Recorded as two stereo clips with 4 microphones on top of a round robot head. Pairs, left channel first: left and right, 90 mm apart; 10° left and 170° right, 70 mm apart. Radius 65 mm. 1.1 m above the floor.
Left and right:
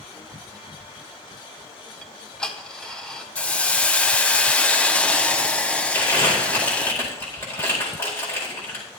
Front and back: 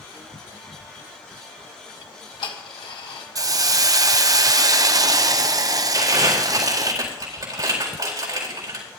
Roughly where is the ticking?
Ahead.